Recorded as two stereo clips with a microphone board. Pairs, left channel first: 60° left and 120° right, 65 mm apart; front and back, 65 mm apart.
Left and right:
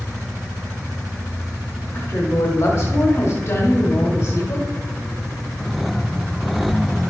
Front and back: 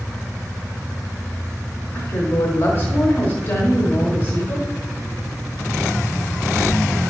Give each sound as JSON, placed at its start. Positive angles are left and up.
{"t": 1.9, "sound": "a woman speaking", "azimuth_deg": 25, "distance_m": 1.7}